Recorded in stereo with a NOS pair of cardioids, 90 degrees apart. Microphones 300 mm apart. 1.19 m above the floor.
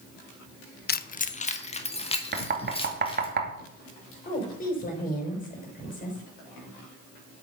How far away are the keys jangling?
About 0.6 m.